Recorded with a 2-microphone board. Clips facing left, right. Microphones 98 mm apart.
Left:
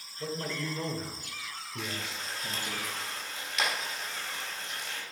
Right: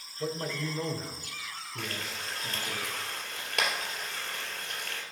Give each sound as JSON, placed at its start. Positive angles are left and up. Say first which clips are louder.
{"t": 0.2, "sound": "a man speaking", "louder": "right 2 dB", "side_deg": -15, "distance_m": 1.1}
{"t": 1.8, "sound": "frying", "louder": "even", "side_deg": -55, "distance_m": 2.5}